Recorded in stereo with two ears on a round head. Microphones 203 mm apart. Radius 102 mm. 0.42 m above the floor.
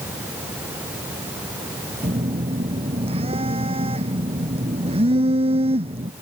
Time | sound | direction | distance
2.0 | a phone buzzing | 25° right (ahead or behind) | ?